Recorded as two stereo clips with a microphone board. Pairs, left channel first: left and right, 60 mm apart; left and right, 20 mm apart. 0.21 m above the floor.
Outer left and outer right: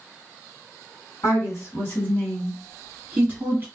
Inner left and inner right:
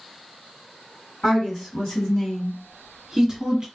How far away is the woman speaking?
About 2 m.